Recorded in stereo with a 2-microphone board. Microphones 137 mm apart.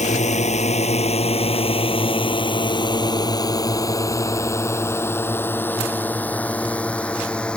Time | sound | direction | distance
0.0 | a drone | 60° left (ahead or behind) | ?